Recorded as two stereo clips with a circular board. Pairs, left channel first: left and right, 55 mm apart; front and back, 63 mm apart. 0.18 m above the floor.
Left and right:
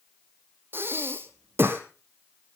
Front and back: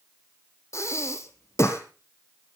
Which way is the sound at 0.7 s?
40° right.